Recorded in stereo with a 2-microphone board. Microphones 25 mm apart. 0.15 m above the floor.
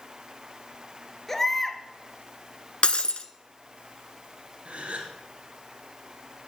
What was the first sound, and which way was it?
A baby crying, 15° left (ahead or behind).